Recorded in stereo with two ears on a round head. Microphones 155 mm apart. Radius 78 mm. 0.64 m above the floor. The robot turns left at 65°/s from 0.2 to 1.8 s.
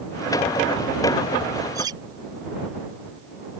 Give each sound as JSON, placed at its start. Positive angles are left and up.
{"t": 1.8, "sound": "cutlery clinking", "side_deg": -20}